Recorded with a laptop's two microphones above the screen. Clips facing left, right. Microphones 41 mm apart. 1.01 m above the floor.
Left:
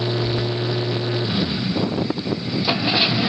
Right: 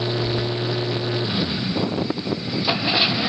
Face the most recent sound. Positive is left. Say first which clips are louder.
# left 1 dB
turn(degrees=-10)  # may be behind; listen again after turning